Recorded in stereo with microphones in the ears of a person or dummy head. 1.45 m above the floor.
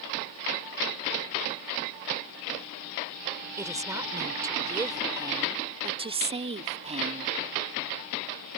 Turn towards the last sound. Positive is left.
turn(degrees=-40)  # may be behind; listen again after turning